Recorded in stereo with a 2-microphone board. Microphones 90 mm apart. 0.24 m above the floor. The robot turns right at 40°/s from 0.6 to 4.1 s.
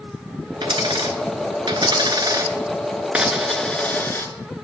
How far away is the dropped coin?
About 1.0 m.